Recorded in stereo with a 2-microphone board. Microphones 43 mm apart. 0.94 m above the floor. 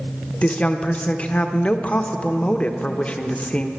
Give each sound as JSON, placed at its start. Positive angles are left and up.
{"t": 0.4, "sound": "a woman speaking", "side_deg": 30, "distance_m": 0.9}